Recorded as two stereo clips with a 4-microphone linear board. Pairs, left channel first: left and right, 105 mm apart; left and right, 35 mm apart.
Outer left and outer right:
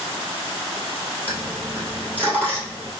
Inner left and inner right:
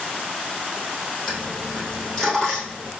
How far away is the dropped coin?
About 1.6 m.